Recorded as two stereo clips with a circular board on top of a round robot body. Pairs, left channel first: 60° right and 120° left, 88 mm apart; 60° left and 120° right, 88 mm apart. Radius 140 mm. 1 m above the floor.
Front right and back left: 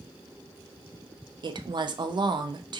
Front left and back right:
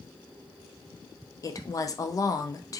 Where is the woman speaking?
100° left, 0.5 m.